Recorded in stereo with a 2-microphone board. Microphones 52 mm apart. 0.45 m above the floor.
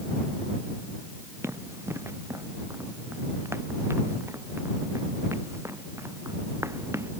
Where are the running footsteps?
55° right (ahead or behind); by 7.1 s 65° right (ahead or behind).